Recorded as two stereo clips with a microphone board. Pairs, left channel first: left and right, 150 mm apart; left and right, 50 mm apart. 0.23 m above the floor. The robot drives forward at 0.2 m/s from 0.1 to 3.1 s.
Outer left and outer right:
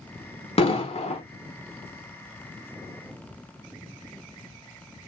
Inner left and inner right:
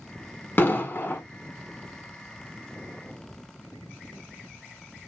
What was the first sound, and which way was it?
An explosion, 40° left (ahead or behind).